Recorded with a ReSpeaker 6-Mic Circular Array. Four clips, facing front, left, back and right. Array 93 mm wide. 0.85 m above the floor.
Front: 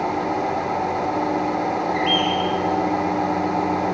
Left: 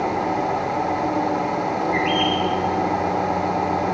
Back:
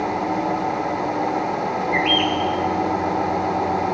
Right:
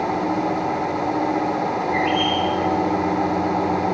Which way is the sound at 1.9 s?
170° left.